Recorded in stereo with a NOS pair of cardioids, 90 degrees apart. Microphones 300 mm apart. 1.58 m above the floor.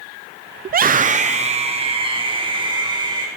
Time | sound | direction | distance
0.7 | a scream | 35° right | 0.5 m